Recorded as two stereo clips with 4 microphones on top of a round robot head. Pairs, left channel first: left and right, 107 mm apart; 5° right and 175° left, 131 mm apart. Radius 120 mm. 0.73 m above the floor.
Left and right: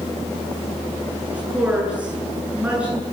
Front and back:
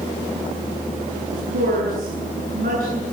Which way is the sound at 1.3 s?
170° right.